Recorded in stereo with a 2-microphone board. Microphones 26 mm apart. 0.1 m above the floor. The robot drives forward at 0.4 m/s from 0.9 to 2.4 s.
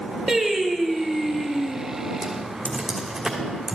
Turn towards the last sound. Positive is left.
turn(degrees=-10)  # may be behind; listen again after turning